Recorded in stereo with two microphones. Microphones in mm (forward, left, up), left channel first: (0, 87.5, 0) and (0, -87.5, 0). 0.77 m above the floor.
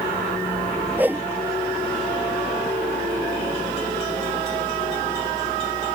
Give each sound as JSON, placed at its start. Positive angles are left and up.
{"t": 1.0, "sound": "a whoosh", "side_deg": -10}